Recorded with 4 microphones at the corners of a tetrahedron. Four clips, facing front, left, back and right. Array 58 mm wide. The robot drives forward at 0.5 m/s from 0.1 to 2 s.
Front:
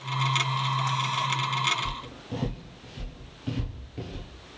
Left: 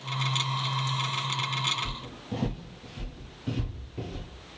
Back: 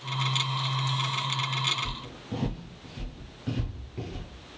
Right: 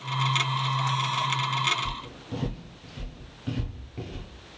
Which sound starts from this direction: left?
Footsteps, at 1.9 s.